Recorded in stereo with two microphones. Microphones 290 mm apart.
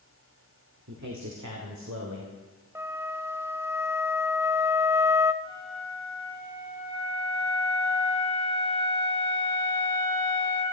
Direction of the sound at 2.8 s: 10° right (ahead or behind).